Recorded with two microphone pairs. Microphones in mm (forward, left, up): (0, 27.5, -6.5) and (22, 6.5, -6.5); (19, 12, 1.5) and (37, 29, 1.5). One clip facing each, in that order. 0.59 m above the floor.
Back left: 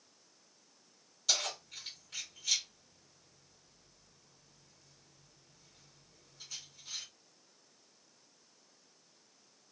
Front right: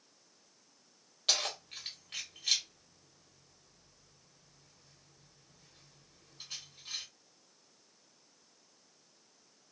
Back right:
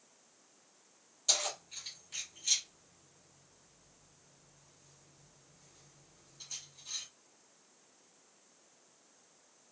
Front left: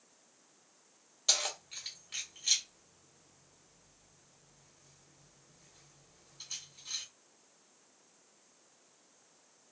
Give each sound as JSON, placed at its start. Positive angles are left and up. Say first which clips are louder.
{"t": 1.3, "sound": "keys jangling", "louder": "front right 2 dB, front left 1 dB", "azimuth_deg": -10, "distance_m": 1.0}